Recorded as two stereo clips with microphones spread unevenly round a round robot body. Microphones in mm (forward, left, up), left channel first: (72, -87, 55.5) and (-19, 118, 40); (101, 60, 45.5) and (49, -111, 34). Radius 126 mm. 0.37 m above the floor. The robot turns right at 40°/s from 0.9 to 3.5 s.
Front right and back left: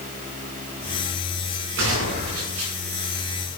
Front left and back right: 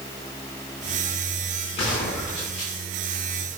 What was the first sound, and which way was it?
A gunshot, 140° left.